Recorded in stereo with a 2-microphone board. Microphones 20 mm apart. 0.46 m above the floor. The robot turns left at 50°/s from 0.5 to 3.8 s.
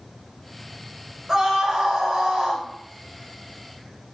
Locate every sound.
1.3 s a scream: 35° right, 2 m; by 2.6 s 100° right, 2 m